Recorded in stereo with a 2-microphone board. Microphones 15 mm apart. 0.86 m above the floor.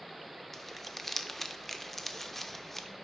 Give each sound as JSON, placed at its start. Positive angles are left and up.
{"t": 0.5, "sound": "crumpling", "side_deg": 20, "distance_m": 0.5}